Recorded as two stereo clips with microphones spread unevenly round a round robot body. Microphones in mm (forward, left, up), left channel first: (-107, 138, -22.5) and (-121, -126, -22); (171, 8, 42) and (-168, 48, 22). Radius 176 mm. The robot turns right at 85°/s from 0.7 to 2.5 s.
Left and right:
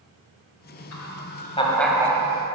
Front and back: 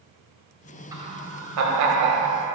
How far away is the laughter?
About 1.6 m.